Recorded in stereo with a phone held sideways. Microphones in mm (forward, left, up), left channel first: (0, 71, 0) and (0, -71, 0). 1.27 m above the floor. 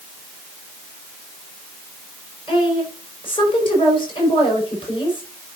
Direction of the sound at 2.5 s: 35° left (ahead or behind).